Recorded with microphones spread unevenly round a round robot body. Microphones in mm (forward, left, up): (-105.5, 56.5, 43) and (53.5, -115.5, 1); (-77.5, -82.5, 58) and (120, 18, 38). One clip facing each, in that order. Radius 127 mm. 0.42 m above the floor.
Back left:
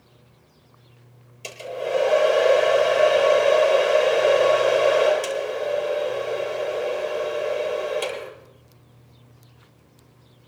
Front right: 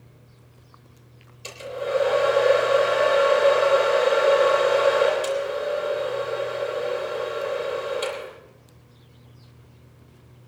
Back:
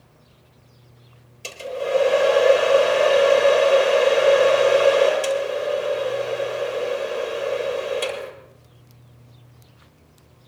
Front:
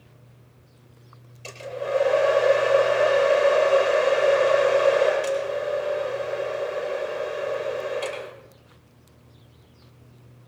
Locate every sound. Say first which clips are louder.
1.4 s a hair dryer: back left 1 dB, back 4 dB; 155° left, 8 m